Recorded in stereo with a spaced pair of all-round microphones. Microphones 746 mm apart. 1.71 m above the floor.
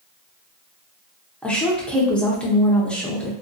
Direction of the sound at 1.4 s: Centre (ahead or behind).